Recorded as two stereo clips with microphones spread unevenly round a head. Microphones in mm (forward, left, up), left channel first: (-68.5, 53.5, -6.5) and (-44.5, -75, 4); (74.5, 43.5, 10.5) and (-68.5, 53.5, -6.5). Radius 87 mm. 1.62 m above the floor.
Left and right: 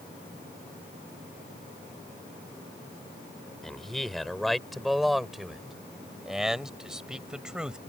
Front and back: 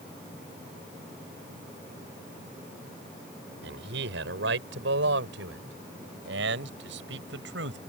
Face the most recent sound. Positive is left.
turn(degrees=-165)